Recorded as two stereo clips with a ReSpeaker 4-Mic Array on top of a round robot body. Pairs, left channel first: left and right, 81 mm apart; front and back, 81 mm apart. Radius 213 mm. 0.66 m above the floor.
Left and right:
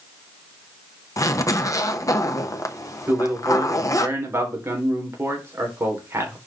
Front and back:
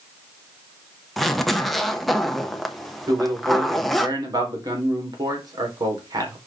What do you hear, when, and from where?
1.2 s a zipper: 90° left, 1.4 m
3.1 s a man speaking: 150° right, 3.5 m